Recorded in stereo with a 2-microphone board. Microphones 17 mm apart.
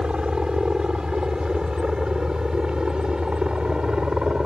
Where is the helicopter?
50° right (ahead or behind); by 4.5 s 55° right (ahead or behind).